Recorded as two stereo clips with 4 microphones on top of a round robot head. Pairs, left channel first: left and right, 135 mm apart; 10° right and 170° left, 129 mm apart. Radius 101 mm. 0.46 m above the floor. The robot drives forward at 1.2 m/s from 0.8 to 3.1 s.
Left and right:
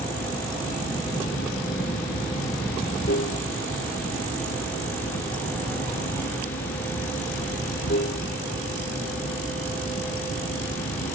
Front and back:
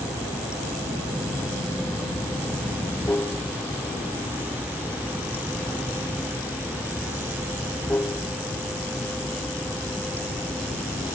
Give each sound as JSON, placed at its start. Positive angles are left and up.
{"t": 0.0, "sound": "running water", "azimuth_deg": 60}